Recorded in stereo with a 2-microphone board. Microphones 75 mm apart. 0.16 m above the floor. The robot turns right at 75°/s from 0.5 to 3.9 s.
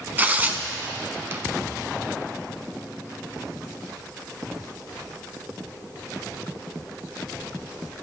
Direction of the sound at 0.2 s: 25° right (ahead or behind).